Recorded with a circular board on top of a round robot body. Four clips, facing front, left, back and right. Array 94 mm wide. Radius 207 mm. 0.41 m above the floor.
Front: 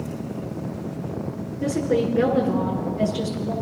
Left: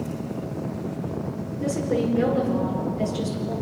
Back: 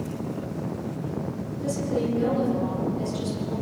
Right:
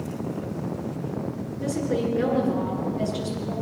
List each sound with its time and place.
1.6 s a woman speaking: 5° right, 7.5 m